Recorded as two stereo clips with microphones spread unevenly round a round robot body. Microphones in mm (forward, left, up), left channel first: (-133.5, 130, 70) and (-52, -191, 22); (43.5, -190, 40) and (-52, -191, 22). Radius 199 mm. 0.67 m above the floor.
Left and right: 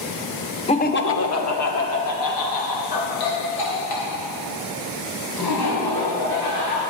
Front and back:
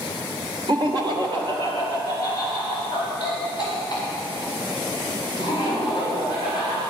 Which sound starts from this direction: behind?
Laughter, at 0.7 s.